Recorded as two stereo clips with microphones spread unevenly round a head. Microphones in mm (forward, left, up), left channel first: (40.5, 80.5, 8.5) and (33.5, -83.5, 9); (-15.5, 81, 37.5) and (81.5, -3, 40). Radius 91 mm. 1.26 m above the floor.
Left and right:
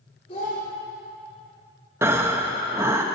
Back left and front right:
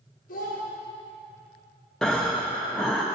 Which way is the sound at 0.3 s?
155° left.